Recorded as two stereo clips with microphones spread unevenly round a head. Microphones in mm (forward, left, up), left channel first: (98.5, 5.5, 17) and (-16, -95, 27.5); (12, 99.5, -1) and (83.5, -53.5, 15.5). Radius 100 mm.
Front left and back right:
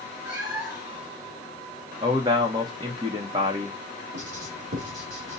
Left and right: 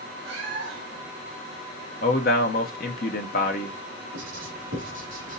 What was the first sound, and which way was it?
A cat meowing, 75° right.